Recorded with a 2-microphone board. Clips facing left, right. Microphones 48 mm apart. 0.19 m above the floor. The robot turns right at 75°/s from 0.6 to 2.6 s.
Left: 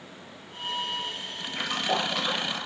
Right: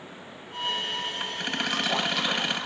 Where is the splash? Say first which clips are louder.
Even; 125° left, 4 m; by 2.7 s 155° right, 4 m.